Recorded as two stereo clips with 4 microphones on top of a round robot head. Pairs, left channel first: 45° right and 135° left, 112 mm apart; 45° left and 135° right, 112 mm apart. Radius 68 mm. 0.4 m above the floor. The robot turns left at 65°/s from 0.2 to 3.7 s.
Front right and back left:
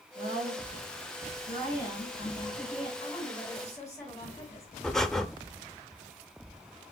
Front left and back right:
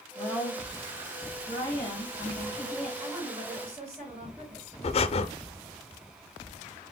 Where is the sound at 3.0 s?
65° right, 3.5 m; by 4.7 s 110° right, 3.5 m.